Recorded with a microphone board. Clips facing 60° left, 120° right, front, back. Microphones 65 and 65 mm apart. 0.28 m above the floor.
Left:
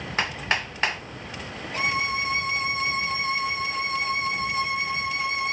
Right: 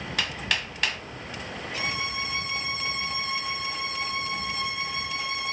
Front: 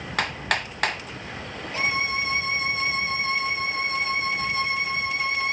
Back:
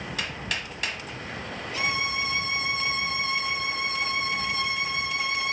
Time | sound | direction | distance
0.2 | hammering | 5° left | 1.3 m
1.7 | a violin | 40° left | 1.4 m